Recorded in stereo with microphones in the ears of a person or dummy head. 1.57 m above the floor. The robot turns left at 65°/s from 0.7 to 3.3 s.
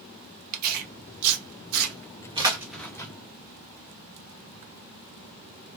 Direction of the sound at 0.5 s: 50° right (ahead or behind).